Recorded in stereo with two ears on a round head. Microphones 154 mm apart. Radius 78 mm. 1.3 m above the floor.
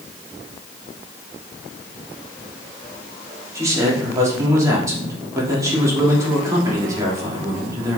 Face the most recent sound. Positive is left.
turn(degrees=-20)  # may be behind; listen again after turning